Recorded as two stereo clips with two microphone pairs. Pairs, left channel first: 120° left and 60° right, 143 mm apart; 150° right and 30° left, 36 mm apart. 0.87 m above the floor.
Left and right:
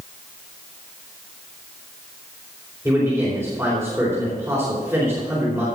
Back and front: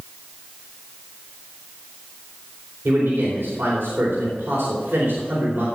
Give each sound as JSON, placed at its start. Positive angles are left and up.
{"t": 2.9, "sound": "a man speaking", "azimuth_deg": 15, "distance_m": 4.0}